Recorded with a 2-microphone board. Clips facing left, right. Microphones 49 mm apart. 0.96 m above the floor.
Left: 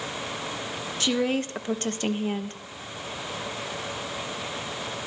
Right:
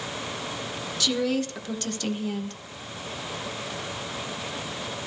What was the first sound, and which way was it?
A woman speaking, 30° left (ahead or behind).